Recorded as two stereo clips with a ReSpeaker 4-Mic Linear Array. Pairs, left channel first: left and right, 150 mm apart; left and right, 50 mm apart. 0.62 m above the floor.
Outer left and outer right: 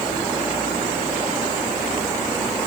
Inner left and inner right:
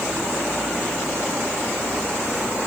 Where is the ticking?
I don't hear ticking.